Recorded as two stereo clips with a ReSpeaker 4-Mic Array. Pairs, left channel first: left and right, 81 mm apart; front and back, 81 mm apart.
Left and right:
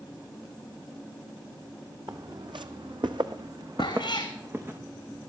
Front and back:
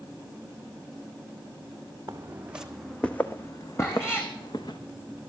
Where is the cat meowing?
60° left, 2.5 m.